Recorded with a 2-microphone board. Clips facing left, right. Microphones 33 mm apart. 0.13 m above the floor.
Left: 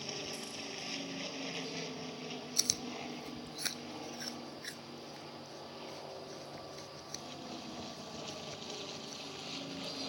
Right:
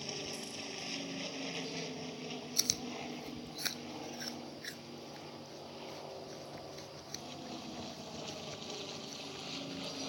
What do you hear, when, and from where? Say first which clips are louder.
0.0 s an aircraft: even; 5° left (ahead or behind); by 10.1 s 5° right (ahead or behind)
2.6 s chewing: even; 10° right (ahead or behind)